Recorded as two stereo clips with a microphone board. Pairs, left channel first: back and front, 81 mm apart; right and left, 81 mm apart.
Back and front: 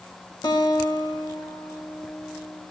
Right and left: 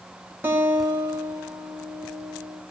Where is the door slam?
No door slam in this recording.